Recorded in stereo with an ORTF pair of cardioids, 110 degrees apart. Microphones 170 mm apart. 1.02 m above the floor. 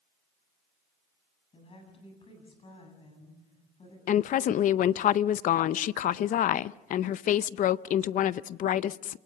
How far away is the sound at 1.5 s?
About 8.5 m.